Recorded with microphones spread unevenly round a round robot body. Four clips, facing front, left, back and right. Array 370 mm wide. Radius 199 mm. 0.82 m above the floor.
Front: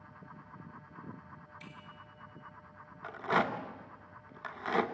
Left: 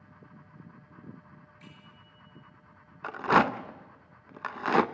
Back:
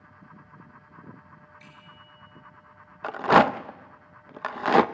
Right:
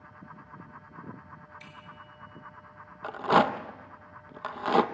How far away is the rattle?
About 0.9 m.